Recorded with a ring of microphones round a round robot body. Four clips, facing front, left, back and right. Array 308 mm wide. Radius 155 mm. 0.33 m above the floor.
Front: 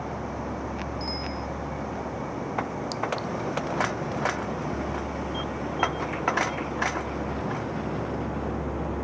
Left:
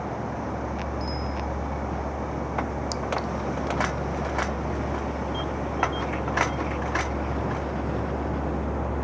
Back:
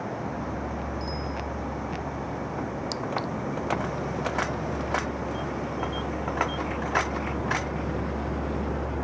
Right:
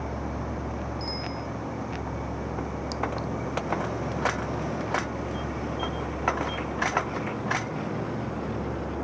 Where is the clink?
120° left.